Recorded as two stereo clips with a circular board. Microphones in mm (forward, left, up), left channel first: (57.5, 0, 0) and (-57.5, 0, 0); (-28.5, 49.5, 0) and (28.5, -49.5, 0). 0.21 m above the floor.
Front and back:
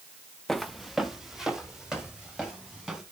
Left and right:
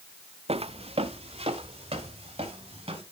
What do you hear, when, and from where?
0.5 s footsteps: 90° right, 0.6 m; by 3.0 s 95° right, 4 m